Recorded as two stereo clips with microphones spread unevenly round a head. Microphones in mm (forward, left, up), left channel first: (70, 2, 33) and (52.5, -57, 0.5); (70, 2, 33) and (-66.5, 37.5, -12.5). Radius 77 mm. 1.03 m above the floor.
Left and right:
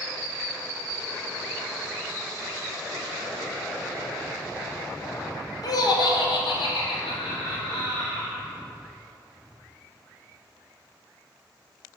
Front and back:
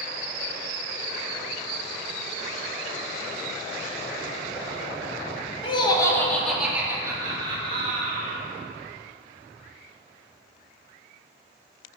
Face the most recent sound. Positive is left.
turn(degrees=125)